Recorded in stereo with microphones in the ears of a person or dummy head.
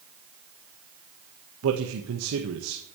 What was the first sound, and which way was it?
A man speaking, 85° right.